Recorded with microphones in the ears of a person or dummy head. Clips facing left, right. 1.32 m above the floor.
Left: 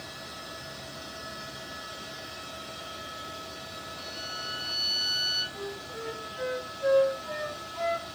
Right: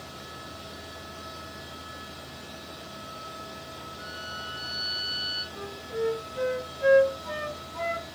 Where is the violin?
65° left (ahead or behind), 1.9 m.